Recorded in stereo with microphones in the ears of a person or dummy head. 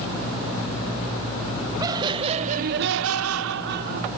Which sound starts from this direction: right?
Laughter, at 1.8 s.